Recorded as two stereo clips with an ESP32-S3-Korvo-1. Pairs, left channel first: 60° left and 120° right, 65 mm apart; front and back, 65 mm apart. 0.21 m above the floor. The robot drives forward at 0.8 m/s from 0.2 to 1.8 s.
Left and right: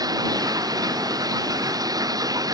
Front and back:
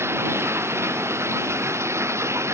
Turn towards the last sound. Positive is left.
turn(degrees=-135)